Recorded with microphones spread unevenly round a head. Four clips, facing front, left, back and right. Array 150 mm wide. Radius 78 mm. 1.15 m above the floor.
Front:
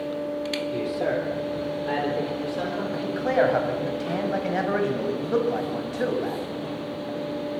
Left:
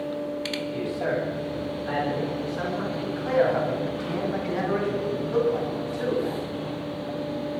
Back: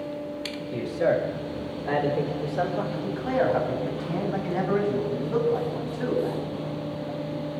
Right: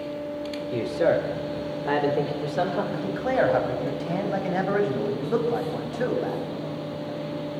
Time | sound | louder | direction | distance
0.7 | a man speaking | right 7 dB, back 4 dB | 90° right | 4 m
2.9 | a man speaking | left 4 dB, front 6 dB | 35° right | 6 m